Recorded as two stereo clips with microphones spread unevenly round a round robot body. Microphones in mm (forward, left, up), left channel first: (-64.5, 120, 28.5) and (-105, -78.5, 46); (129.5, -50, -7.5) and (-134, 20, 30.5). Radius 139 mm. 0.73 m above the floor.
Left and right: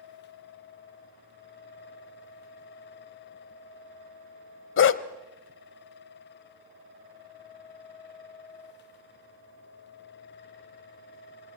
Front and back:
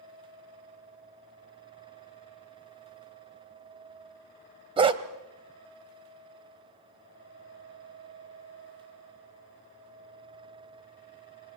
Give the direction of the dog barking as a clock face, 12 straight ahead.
9 o'clock.